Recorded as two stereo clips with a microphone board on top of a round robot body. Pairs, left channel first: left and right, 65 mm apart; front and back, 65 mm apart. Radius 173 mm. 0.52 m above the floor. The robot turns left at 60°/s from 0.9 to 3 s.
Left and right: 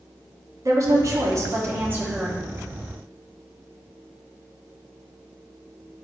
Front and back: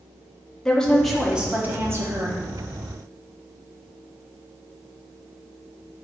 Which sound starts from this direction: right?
A woman speaking, at 0.7 s.